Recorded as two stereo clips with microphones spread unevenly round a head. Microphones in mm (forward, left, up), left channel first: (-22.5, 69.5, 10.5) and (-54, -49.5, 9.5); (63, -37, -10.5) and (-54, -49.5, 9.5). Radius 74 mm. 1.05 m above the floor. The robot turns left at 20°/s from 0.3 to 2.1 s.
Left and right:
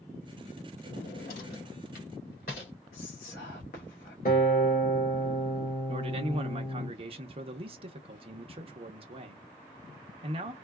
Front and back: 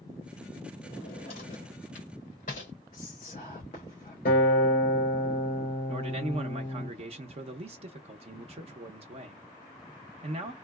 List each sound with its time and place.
0.8 s a drawer: 70° left, 2.5 m; by 2.7 s 45° left, 2.5 m
2.9 s whispering: 60° left, 1.3 m
4.2 s a guitar: 35° left, 1.8 m
5.9 s a man speaking: 140° right, 0.8 m